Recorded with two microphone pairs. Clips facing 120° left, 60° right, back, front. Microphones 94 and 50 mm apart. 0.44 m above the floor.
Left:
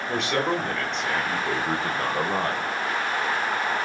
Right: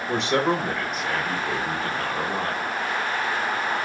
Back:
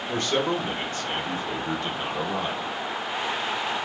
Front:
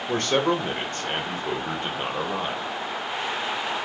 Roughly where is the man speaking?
Ahead.